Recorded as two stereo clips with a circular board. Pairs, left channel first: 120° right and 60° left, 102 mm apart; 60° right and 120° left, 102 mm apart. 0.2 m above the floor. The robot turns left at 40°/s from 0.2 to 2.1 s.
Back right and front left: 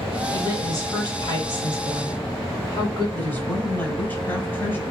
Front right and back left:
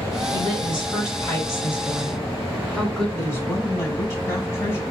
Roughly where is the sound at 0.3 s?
Right.